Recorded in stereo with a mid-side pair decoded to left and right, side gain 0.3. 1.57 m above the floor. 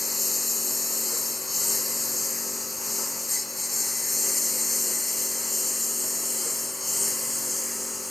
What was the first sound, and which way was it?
A lawn mower, 30° left.